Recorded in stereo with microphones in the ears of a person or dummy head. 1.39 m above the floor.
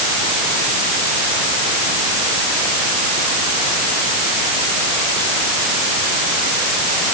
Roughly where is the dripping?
I don't hear dripping.